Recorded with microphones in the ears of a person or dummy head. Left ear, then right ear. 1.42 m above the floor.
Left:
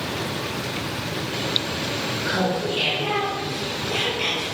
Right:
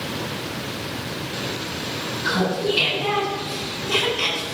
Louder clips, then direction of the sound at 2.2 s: Right 3 dB; 50° right (ahead or behind).